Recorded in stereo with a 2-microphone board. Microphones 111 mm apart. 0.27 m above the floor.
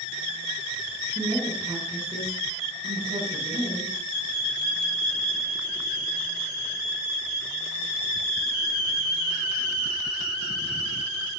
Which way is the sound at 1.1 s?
50° right (ahead or behind).